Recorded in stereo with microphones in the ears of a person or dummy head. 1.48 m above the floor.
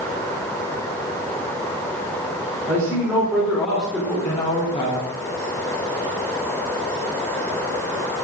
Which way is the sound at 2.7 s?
15° right (ahead or behind).